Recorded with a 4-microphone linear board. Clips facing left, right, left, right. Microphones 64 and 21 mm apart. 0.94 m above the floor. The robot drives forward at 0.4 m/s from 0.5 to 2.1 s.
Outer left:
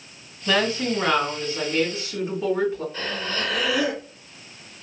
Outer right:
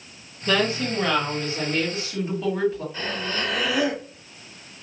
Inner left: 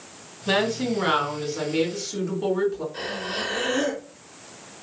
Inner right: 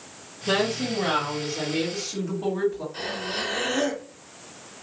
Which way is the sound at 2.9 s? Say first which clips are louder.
Even, even; 5° right (ahead or behind).